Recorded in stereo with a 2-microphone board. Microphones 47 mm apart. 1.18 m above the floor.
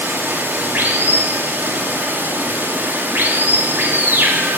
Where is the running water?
40° right (ahead or behind), 1.9 m.